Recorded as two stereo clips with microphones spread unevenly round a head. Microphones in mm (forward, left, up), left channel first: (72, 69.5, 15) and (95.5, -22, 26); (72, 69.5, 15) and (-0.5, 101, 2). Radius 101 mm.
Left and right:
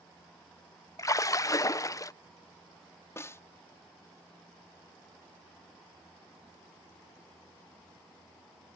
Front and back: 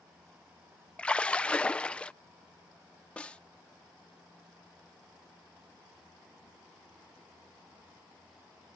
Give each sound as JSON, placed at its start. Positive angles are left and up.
{"t": 1.0, "sound": "a splash", "azimuth_deg": 55}
{"t": 3.2, "sound": "a snare drum", "azimuth_deg": 40}